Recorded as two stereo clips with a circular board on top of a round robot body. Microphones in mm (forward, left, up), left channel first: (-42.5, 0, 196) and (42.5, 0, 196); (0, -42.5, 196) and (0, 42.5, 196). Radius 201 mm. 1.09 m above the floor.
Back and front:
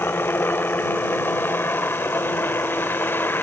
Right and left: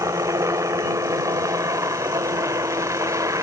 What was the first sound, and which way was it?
A helicopter, 125° left.